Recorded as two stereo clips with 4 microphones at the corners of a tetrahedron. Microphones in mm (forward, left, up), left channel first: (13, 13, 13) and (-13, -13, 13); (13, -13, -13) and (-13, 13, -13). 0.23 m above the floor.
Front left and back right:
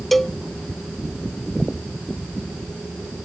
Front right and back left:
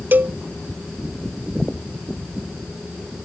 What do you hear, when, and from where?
0.1 s a cowbell: 130° left